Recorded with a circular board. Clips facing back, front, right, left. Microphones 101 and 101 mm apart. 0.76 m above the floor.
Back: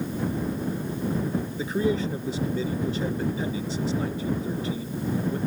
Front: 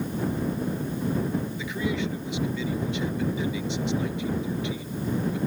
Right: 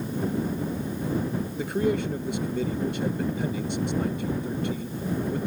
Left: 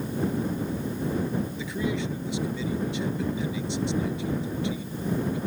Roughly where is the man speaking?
Behind right.